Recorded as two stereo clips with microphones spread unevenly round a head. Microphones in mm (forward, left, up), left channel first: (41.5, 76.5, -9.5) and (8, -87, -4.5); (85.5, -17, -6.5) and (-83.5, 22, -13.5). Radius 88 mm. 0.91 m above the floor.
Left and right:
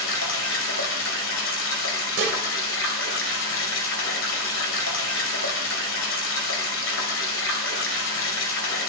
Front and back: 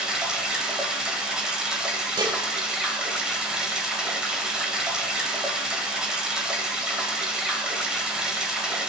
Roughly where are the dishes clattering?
Behind right.